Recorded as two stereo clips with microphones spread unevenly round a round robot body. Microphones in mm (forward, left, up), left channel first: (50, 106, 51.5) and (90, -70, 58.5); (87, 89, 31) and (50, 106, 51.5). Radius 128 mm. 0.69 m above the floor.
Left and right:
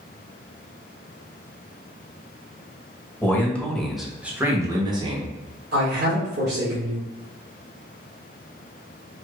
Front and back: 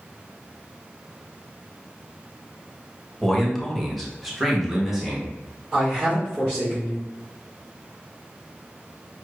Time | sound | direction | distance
3.2 | a man speaking | 30° left | 1.3 m
5.7 | a man speaking | 115° right | 1.7 m